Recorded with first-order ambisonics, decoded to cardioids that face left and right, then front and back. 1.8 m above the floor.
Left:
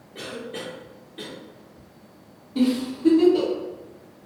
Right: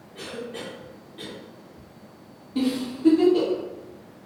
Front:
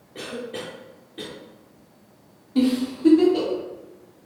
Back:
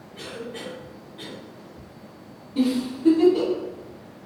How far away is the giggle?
About 1.3 m.